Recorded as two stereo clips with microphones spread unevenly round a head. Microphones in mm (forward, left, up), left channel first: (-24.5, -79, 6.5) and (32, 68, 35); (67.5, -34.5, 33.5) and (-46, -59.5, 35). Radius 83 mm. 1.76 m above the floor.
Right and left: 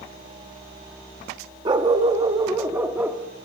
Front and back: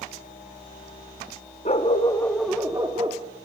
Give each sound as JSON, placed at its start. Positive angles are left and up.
{"t": 1.6, "sound": "a dog barking", "azimuth_deg": 35, "distance_m": 1.5}